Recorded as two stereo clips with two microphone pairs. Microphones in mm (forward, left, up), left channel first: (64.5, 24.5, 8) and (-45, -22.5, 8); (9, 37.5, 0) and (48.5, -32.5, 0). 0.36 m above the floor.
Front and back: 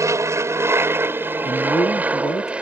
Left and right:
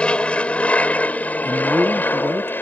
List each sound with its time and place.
0.0 s an aircraft: straight behind; by 2.6 s 135° left
1.4 s a man speaking: straight ahead